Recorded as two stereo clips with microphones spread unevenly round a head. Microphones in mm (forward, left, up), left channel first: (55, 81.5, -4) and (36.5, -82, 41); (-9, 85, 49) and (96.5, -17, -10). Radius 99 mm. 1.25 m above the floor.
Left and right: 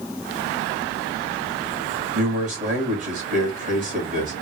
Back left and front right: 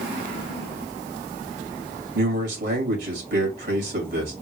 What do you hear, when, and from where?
2.1 s a man speaking: 50° right, 2.5 m